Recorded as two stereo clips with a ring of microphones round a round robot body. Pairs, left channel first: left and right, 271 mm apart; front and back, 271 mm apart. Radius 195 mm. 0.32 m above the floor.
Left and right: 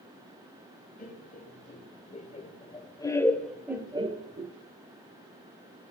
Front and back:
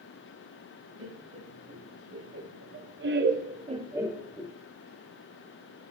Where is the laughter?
150° left, 2.5 m; by 4.5 s 65° right, 1.0 m.